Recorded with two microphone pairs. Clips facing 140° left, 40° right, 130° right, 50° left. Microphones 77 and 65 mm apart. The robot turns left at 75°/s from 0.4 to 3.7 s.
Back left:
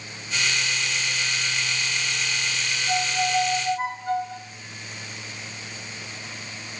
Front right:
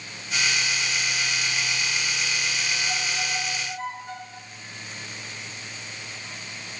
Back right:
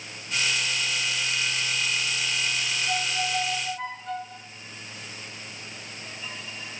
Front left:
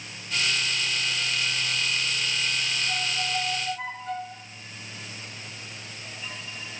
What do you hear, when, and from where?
2.9 s a violin: 165° right, 2.5 m; by 4.4 s 135° left, 2.5 m